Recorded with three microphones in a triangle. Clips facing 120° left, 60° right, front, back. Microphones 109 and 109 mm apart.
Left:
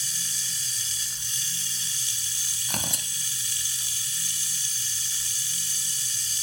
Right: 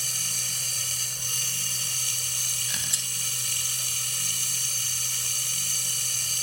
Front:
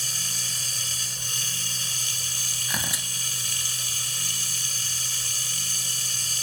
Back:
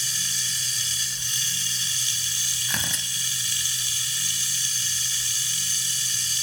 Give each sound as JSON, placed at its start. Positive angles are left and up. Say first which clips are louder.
{"t": 0.0, "sound": "running water", "louder": "right 2 dB, even", "azimuth_deg": -40}
{"t": 2.7, "sound": "tearing paper", "louder": "left 9 dB, even", "azimuth_deg": 80}